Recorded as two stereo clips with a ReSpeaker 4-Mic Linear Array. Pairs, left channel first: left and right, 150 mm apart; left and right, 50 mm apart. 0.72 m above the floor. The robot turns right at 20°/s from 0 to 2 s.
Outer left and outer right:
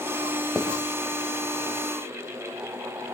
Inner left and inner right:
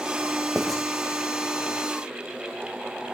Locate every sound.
0.6 s writing: 5° left (ahead or behind), 3 m; by 0.8 s 10° left (ahead or behind), 3 m